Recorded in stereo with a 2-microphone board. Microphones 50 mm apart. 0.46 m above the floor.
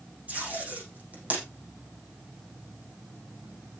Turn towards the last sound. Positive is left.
turn(degrees=-30)  # may be behind; listen again after turning